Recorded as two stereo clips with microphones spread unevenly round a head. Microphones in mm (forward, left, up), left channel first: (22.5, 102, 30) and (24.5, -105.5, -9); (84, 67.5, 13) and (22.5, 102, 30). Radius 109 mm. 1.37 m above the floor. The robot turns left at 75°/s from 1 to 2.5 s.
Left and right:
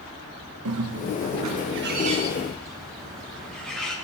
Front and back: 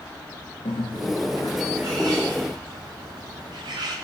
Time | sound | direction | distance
0.7 | a bird | 75° right | 0.9 m